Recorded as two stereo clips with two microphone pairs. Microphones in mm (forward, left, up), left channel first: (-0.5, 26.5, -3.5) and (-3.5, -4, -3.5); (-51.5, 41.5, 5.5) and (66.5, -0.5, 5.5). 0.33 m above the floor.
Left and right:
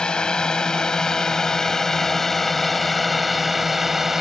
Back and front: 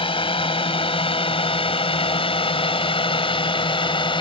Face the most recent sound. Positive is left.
turn(degrees=-175)